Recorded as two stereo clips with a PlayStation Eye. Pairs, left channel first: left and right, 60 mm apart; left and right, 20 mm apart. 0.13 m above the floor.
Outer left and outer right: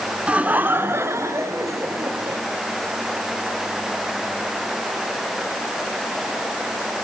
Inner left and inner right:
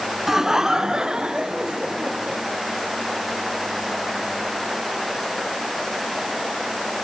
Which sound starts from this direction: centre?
Laughter, at 0.3 s.